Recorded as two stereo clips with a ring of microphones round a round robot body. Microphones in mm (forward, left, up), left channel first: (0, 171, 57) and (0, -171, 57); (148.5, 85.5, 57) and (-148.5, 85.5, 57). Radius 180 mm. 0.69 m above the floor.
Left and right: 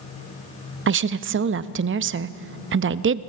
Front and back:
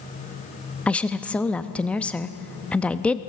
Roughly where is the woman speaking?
Right.